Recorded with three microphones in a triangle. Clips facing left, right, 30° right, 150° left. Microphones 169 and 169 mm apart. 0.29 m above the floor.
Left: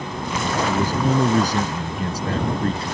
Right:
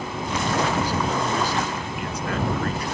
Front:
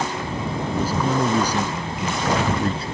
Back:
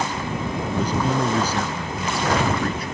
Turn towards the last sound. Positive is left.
turn(degrees=30)